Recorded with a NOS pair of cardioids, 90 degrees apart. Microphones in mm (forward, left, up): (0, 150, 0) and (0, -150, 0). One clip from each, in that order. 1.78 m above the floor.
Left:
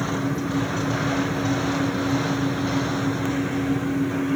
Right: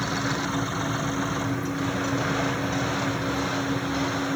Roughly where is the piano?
I don't hear a piano.